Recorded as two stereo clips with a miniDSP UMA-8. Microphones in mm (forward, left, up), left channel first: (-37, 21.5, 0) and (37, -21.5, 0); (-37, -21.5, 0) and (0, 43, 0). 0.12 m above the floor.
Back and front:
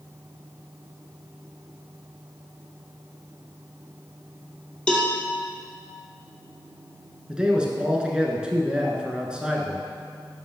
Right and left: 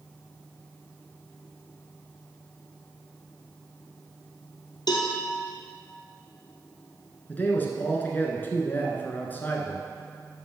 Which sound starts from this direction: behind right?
A cowbell, at 4.9 s.